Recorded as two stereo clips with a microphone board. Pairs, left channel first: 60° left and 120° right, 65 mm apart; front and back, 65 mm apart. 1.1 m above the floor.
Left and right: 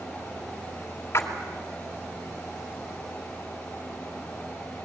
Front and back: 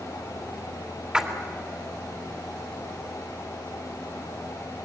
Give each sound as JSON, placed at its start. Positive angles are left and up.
{"t": 1.1, "sound": "a splash", "azimuth_deg": 105, "distance_m": 2.5}